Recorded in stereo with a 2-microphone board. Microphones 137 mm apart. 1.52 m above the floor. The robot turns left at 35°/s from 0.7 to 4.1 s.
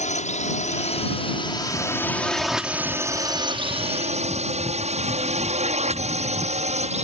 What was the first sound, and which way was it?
A drone, 60° left (ahead or behind).